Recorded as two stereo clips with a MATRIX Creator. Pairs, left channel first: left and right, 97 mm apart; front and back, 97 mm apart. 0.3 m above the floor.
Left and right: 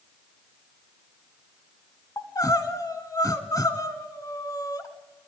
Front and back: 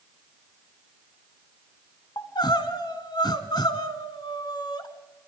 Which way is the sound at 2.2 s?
35° left.